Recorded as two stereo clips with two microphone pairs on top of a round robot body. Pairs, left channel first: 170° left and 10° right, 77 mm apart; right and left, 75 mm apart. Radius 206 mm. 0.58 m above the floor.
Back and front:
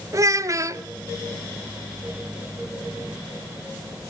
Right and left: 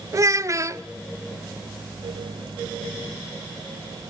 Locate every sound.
0.1 s a child speaking: 40° left, 1.3 m